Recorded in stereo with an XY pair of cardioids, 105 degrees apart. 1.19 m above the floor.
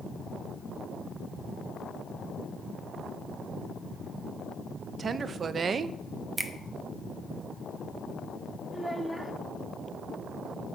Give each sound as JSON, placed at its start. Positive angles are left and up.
{"t": 5.0, "sound": "a woman speaking", "azimuth_deg": -40, "distance_m": 0.7}
{"t": 6.4, "sound": "a finger snap", "azimuth_deg": -20, "distance_m": 1.0}
{"t": 8.7, "sound": "a child speaking", "azimuth_deg": -10, "distance_m": 1.3}